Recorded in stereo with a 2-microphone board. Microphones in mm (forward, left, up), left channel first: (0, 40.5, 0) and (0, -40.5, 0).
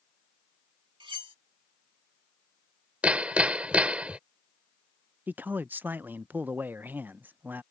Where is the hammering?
15° right (ahead or behind).